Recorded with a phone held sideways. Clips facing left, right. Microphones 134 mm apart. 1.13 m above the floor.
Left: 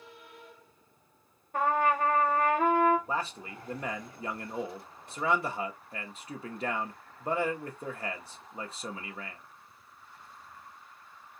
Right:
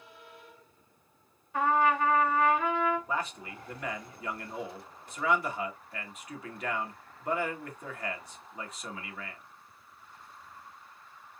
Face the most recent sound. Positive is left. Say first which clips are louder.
# even
turn(degrees=30)  # may be behind; listen again after turning